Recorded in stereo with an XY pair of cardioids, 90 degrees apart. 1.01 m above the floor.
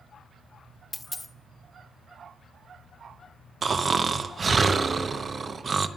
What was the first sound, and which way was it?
A dropped coin, 20° left.